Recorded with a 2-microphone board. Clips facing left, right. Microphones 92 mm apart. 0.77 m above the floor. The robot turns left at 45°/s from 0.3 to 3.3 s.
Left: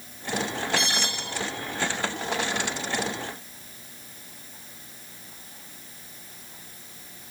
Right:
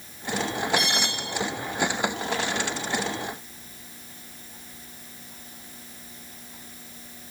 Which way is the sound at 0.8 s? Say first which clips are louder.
Right 1 dB; 30° left (ahead or behind).